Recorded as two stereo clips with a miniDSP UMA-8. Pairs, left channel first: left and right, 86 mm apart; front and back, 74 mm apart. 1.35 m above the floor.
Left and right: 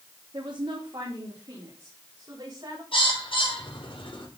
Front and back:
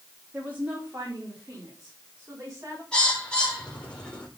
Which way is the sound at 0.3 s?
115° right.